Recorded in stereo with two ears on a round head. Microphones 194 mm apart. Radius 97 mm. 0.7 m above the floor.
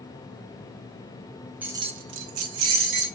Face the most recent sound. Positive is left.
turn(degrees=-55)  # may be behind; listen again after turning